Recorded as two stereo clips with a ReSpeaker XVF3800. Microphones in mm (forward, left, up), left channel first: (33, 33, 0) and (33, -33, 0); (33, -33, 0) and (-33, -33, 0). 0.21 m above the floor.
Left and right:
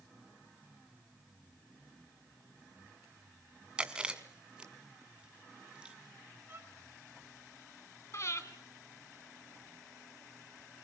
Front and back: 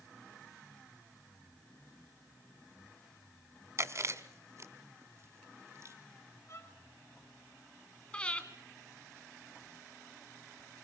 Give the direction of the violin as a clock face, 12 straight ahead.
1 o'clock.